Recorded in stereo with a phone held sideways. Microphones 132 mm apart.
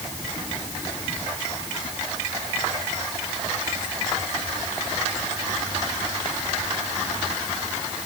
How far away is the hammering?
No hammering in this recording.